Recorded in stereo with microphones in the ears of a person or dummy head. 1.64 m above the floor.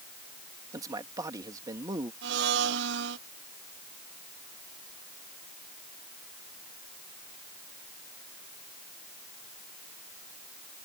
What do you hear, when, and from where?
0.7 s a man speaking: 20° right (ahead or behind)
2.2 s a blender: 65° right (ahead or behind)